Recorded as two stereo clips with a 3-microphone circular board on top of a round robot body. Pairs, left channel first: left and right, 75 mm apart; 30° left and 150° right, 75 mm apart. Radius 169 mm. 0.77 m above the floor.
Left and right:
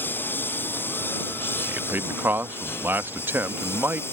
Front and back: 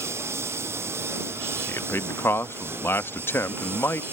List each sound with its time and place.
0.0 s a lawn mower: 155° left; by 4.1 s 150° left
1.7 s a man speaking: 25° right